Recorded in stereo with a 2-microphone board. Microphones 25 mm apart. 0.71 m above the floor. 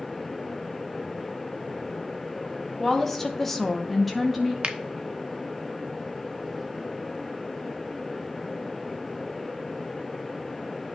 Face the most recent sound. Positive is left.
turn(degrees=-45)  # may be behind; listen again after turning